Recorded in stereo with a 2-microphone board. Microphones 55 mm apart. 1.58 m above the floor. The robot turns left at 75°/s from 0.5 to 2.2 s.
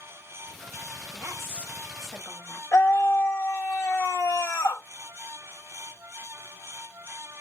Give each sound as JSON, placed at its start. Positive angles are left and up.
{"t": 1.1, "sound": "a woman speaking", "azimuth_deg": -115, "distance_m": 1.6}
{"t": 2.7, "sound": "a scream", "side_deg": 65, "distance_m": 1.2}